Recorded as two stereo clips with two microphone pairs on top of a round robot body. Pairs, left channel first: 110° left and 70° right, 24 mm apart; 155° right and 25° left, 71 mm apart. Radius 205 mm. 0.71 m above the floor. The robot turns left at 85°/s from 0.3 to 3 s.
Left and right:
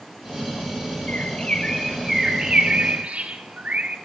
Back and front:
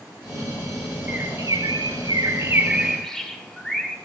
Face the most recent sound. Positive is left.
turn(degrees=-70)